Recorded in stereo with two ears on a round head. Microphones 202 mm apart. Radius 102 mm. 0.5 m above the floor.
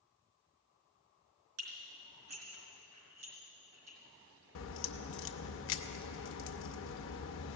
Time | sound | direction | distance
1.6 | dishes clattering | 80° right | 4 m
4.5 | a crack | 60° left (ahead or behind) | 0.7 m